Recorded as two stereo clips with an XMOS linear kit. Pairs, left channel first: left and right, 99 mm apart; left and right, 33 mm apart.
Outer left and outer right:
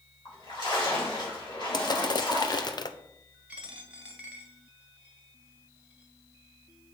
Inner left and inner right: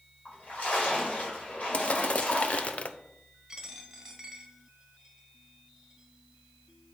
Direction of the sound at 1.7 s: 45° left (ahead or behind).